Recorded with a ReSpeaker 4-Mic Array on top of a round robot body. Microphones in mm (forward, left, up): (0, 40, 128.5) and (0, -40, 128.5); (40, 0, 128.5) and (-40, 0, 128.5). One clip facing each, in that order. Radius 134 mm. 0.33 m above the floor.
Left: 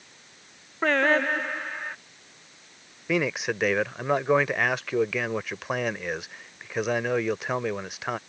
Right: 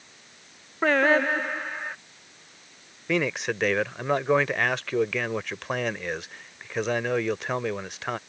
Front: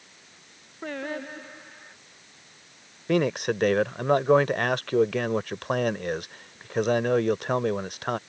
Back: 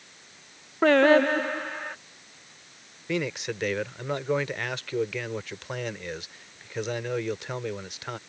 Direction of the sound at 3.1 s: 5° left.